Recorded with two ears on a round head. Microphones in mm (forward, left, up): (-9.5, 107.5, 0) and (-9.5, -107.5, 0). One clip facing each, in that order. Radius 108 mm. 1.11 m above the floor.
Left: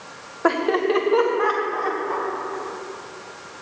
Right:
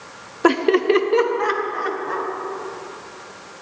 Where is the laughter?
45° right (ahead or behind), 0.6 m; by 2.3 s 30° right (ahead or behind), 2.0 m.